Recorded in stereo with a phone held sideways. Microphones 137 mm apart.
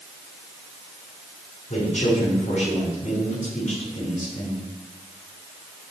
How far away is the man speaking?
About 5 m.